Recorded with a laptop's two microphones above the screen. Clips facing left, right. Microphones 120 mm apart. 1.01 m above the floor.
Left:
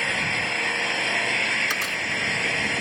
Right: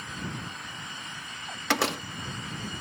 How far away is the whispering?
I don't hear whispering.